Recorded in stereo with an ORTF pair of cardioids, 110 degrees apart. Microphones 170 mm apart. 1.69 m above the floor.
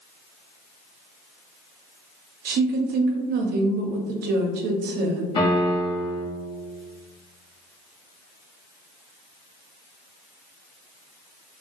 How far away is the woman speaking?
About 0.6 m.